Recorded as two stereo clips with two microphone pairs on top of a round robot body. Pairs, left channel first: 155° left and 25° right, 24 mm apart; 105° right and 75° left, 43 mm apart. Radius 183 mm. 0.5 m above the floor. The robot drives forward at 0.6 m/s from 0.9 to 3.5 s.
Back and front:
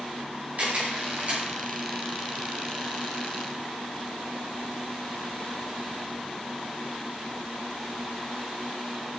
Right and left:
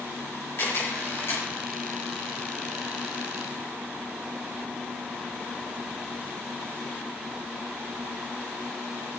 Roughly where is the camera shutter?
Ahead right.